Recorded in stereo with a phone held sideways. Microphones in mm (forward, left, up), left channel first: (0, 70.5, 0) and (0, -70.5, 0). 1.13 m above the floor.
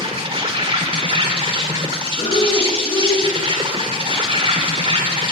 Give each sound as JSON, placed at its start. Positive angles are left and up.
{"t": 0.0, "sound": "an insect", "side_deg": -40, "distance_m": 1.6}
{"t": 2.2, "sound": "breathing", "side_deg": 35, "distance_m": 4.0}